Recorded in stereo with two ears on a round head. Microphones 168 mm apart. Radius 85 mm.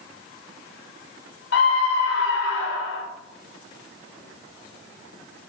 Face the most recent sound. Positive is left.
turn(degrees=60)  # may be behind; listen again after turning